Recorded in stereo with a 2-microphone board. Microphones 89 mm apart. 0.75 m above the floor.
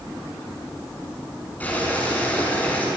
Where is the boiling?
20° left (ahead or behind), 7.5 m.